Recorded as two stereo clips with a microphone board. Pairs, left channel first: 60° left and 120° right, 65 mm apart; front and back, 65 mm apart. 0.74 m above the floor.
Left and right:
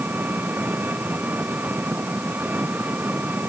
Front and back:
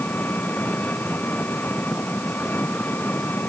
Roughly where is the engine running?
Ahead right.